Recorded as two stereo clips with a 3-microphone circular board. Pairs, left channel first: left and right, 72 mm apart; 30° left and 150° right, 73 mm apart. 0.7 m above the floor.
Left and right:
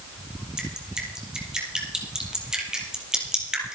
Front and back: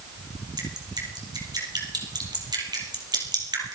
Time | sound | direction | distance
0.6 | dripping | 170° right | 3.5 m